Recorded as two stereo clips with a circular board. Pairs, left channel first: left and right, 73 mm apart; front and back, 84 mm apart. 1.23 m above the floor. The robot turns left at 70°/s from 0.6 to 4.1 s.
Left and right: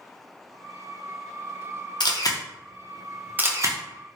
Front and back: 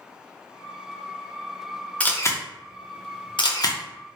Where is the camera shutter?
75° left, 0.6 m; by 3.8 s 50° right, 0.6 m.